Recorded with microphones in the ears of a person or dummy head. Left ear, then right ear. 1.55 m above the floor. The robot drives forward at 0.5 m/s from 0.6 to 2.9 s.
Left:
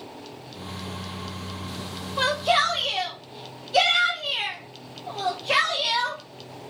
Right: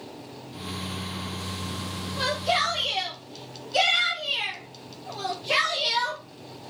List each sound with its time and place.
2.2 s a shout: 30° left (ahead or behind), 0.6 m; by 6.2 s 20° left (ahead or behind), 0.9 m